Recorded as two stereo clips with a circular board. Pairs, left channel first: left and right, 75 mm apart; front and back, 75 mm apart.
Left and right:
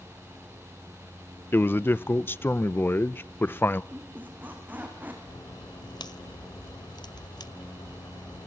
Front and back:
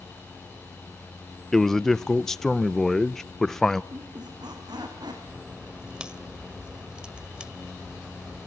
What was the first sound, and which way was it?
A man speaking, 80° left.